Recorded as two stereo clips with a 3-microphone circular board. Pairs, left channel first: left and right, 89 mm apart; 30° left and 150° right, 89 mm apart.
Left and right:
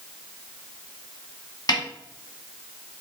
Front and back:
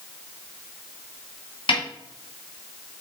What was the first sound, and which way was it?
A snare drum, 45° left.